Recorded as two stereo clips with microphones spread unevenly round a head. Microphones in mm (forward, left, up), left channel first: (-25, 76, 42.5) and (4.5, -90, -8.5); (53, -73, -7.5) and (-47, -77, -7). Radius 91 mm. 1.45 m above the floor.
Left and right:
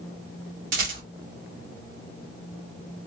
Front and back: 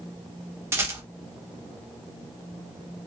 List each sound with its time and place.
0.7 s a rattle: 110° right, 1.1 m